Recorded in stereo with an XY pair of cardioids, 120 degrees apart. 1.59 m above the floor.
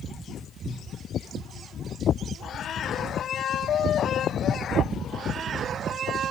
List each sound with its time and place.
0.6 s a cupboard door: 10° left, 2.5 m